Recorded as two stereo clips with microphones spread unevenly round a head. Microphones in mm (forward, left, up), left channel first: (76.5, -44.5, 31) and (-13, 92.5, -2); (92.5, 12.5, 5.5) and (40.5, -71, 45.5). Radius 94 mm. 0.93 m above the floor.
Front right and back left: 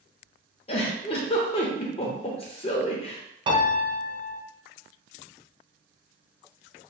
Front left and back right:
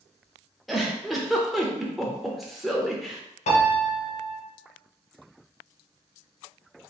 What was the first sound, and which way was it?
A giggle, 60° right.